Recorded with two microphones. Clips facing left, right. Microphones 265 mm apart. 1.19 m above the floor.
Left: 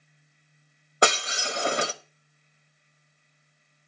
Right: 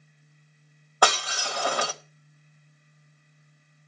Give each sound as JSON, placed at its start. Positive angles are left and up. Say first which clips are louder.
{"t": 1.0, "sound": "breaking glass", "louder": "left 1 dB", "side_deg": 25, "distance_m": 1.0}